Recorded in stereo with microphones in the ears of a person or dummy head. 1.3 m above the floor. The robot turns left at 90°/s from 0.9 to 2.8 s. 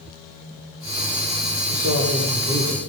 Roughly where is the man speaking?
Ahead right.